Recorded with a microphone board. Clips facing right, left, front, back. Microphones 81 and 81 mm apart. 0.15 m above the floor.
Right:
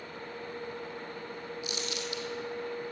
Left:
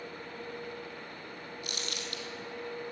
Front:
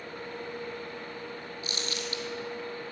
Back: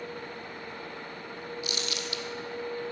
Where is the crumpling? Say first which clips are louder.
Right 4 dB, front 1 dB; 55° left, 1.4 m.